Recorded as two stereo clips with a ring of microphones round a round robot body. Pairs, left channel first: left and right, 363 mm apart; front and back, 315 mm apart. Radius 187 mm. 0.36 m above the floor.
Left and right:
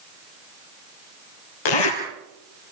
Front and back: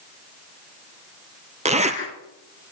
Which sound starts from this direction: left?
A zipper, at 1.6 s.